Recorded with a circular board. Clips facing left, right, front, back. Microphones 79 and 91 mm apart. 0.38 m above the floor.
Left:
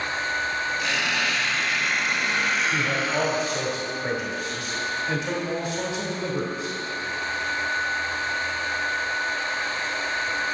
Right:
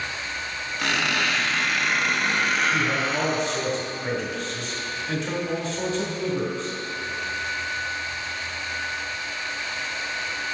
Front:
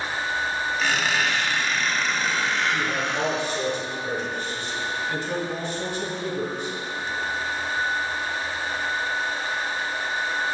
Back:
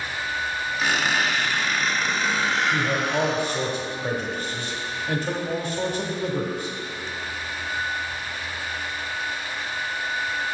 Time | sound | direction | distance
0.8 | a squeak | 95° right | 1.5 m
2.7 | a man speaking | 155° left | 1.4 m